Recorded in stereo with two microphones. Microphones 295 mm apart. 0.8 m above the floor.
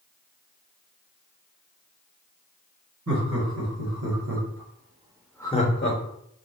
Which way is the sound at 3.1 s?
70° right (ahead or behind).